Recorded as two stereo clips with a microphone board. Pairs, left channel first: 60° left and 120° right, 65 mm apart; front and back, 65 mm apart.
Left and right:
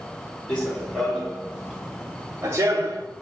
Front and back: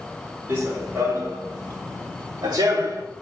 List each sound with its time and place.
0.5 s running footsteps: 130° left, 2.5 m; by 3.0 s 150° right, 1.4 m